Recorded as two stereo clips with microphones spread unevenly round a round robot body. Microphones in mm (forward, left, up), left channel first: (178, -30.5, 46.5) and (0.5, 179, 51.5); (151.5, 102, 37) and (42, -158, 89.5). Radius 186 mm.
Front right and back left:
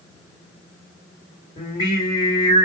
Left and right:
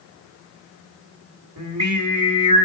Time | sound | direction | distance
1.6 | singing | 120° right | 1.8 m